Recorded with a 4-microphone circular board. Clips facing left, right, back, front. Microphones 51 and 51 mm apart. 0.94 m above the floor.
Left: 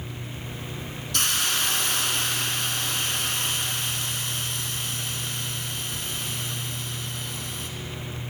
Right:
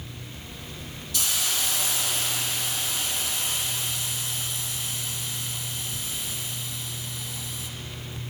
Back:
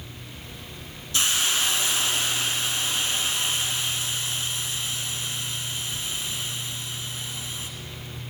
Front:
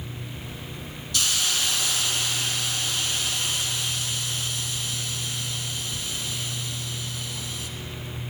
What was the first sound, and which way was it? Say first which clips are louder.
A hiss: left 4 dB, back 2 dB; 120° left.